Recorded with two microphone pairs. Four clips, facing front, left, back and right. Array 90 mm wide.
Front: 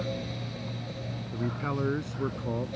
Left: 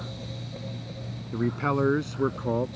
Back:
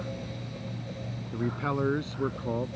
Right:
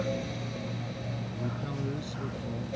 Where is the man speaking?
105° left; by 2.7 s 100° left.